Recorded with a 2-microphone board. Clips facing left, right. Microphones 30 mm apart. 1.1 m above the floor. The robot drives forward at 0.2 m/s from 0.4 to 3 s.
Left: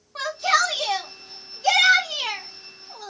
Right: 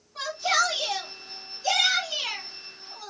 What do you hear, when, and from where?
0.1 s a shout: 60° left (ahead or behind), 1.0 m; by 3.1 s 70° left (ahead or behind), 1.0 m